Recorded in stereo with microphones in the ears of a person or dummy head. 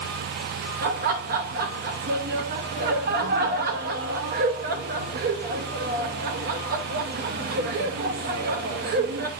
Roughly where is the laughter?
Right.